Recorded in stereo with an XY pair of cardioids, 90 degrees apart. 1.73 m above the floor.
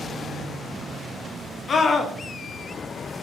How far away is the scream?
About 0.8 m.